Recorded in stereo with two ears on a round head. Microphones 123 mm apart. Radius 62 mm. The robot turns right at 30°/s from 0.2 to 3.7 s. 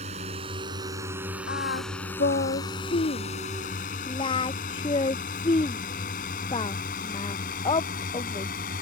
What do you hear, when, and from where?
0.0 s a drone: 45° right (ahead or behind); by 8.8 s 65° left (ahead or behind)
1.5 s singing: 75° left (ahead or behind); by 8.5 s 35° left (ahead or behind)